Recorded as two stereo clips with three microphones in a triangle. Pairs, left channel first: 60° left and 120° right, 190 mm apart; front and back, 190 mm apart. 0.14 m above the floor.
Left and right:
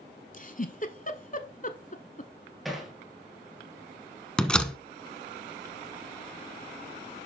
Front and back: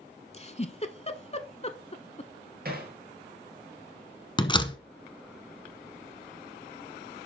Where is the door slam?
20° right, 0.8 m.